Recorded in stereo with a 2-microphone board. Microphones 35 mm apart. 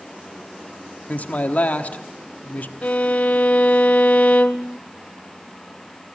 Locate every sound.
1.1 s a man speaking: 45° left (ahead or behind), 1.2 m
2.8 s a violin: 40° left (ahead or behind), 0.6 m